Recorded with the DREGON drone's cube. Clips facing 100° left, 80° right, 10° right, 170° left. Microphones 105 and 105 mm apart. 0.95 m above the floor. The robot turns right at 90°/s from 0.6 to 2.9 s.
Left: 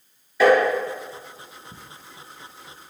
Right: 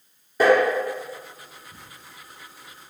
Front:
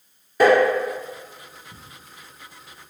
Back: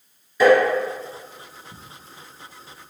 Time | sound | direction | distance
0.4 | tapping | 40° right | 1.9 m
1.7 | ticking | 95° left | 0.6 m